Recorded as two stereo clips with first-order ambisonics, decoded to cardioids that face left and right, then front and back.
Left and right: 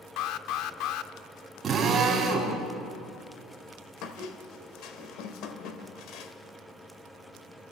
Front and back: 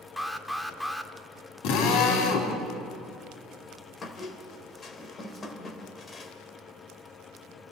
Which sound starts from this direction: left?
An alarm, at 0.2 s.